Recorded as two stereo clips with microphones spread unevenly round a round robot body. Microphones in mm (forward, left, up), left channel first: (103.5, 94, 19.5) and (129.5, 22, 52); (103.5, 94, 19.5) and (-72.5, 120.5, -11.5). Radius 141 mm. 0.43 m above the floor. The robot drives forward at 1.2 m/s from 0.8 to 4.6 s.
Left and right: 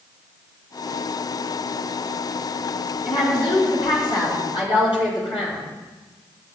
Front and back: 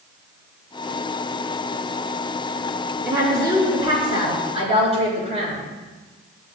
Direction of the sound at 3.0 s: 100° left.